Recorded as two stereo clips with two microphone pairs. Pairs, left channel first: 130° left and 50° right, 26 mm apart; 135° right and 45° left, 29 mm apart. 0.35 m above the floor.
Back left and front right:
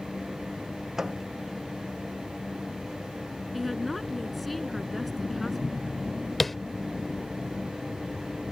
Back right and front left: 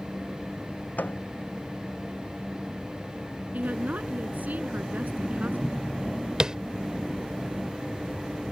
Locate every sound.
1.0 s a microwave: 130° right
3.5 s a woman speaking: 35° left
6.4 s tapping: 45° left